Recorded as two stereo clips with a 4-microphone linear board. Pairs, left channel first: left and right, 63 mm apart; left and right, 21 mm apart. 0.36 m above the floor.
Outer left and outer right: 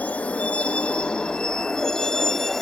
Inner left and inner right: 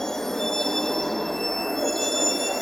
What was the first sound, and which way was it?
A vehicle, 25° left (ahead or behind).